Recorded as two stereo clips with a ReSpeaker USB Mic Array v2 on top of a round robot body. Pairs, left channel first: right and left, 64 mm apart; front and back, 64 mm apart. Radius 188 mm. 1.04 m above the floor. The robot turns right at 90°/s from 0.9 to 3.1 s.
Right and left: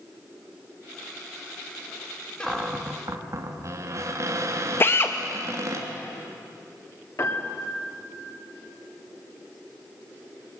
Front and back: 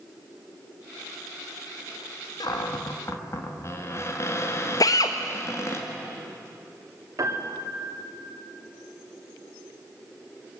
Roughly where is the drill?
Ahead right.